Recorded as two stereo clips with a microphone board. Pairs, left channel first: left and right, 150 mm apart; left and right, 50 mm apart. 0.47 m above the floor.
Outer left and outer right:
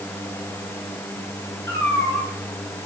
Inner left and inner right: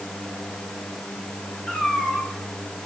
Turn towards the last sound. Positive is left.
turn(degrees=20)  # may be behind; listen again after turning